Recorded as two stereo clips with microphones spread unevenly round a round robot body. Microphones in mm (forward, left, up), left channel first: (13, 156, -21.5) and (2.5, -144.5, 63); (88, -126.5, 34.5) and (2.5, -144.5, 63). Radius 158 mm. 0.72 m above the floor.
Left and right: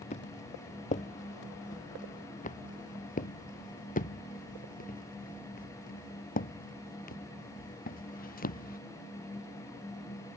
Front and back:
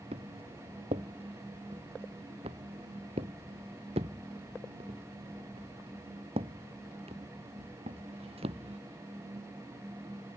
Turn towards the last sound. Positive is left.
turn(degrees=150)